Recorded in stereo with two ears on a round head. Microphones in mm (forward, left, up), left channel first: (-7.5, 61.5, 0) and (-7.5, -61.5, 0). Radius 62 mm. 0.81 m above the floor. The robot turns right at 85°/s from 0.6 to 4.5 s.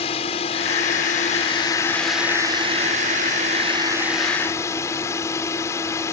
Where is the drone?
50° left; by 6.1 s 25° left.